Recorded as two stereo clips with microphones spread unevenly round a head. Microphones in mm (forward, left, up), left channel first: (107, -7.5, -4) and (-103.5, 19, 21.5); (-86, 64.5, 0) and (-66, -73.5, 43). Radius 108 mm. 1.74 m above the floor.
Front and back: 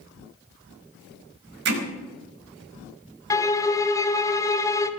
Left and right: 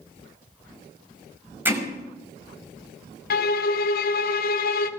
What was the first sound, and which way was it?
Hammering, 150° right.